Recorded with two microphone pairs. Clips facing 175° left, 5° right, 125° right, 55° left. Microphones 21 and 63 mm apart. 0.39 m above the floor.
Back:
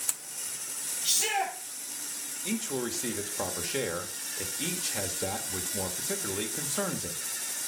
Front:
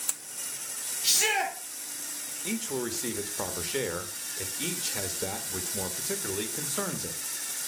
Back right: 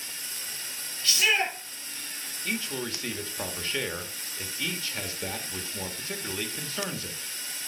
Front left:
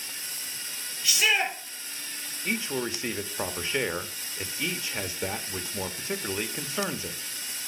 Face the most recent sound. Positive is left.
turn(degrees=60)